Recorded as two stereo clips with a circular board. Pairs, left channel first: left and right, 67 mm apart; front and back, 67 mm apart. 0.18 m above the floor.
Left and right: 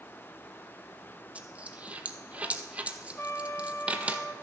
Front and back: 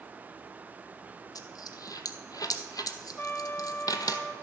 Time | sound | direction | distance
1.4 | a dropped coin | 20° right | 0.8 m
3.2 | a trumpet | 50° left | 0.8 m